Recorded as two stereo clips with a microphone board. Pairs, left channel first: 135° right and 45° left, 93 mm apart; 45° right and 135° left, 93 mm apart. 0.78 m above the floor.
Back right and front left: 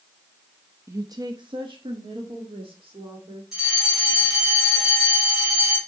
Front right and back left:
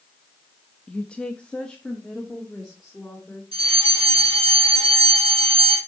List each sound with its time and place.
0.9 s a woman speaking: 20° left, 0.6 m; by 3.4 s 40° left, 2 m
3.5 s a fire alarm: 130° left, 4 m